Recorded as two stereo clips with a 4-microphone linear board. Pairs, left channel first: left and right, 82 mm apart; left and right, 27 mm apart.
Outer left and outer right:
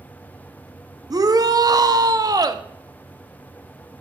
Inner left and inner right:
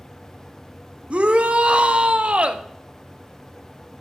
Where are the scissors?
I don't hear scissors.